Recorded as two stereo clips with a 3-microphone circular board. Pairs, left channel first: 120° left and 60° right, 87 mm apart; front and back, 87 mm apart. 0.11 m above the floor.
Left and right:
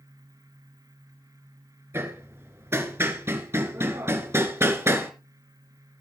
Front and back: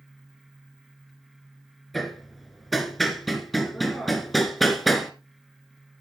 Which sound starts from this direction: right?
Hammering, at 1.9 s.